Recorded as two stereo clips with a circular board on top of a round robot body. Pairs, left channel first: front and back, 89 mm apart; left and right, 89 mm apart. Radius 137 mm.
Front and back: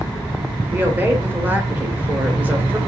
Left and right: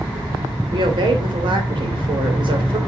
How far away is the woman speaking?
About 2.5 m.